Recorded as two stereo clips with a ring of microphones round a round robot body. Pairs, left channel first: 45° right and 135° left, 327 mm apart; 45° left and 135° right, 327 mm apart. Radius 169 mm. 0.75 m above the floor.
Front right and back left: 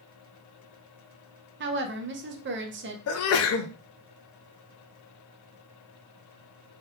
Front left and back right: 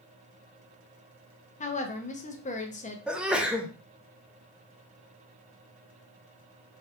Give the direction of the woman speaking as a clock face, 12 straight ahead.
9 o'clock.